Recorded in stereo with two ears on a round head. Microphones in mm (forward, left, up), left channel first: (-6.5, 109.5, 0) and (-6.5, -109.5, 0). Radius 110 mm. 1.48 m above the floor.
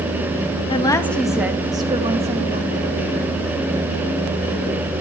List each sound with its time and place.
0.7 s a woman speaking: 25° left (ahead or behind), 2 m; by 3.4 s 40° right (ahead or behind), 5 m